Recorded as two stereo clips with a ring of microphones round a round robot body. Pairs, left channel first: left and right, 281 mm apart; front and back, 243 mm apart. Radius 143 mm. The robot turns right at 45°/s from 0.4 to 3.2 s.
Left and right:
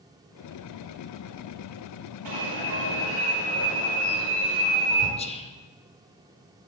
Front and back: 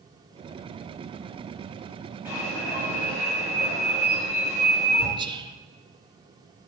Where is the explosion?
No explosion in this recording.